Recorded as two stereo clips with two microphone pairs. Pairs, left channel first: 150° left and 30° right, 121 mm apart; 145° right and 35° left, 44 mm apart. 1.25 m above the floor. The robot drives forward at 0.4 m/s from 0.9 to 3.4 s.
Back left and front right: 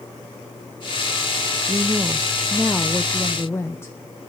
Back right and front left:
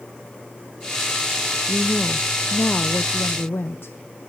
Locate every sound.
1.7 s a woman speaking: 70° right, 0.6 m; by 4.0 s 140° right, 0.8 m